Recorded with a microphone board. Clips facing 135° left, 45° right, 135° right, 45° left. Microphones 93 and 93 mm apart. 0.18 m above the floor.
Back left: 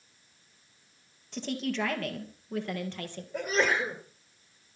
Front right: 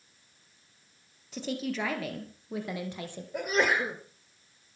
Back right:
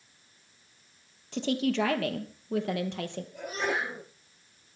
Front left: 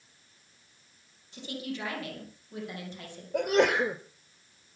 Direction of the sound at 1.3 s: 130° right.